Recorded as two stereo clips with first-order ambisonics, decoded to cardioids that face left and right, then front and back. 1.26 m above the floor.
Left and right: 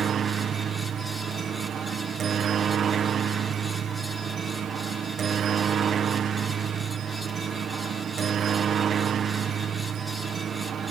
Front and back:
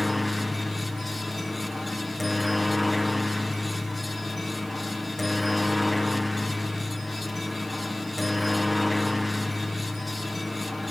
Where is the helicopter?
80° right.